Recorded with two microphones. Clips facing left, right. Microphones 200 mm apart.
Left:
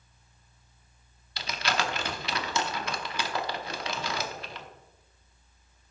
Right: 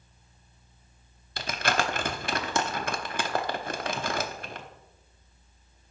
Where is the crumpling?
50° right (ahead or behind), 0.9 m.